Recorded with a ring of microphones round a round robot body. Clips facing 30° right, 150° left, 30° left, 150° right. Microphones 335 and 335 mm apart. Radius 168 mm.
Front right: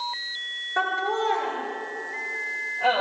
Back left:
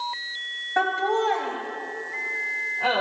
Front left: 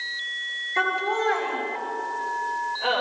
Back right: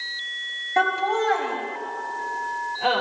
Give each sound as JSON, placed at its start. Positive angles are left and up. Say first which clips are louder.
{"t": 0.8, "sound": "laughter", "louder": "back left 3 dB, back right 3 dB", "azimuth_deg": 170, "distance_m": 6.0}